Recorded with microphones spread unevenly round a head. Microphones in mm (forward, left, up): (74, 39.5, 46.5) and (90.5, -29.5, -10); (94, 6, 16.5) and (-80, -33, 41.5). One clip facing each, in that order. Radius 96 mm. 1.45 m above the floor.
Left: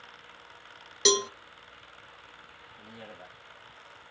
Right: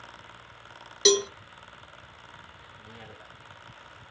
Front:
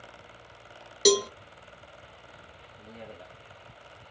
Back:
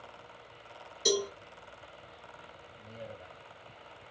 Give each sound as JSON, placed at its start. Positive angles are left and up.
{"t": 1.1, "sound": "a cowbell", "azimuth_deg": 35, "distance_m": 1.0}
{"t": 2.8, "sound": "a man speaking", "azimuth_deg": 45, "distance_m": 1.3}